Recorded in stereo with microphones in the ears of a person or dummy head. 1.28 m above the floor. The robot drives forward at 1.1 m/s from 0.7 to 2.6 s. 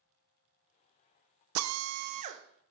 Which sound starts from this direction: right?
A drill, at 1.6 s.